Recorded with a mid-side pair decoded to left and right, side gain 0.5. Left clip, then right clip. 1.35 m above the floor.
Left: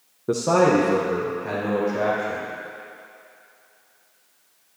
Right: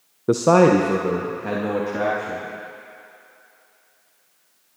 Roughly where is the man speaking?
Ahead right.